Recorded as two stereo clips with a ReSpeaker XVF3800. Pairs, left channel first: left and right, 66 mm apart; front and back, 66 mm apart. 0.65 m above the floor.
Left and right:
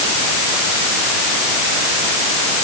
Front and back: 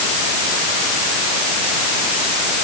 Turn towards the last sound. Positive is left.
No sound to turn to.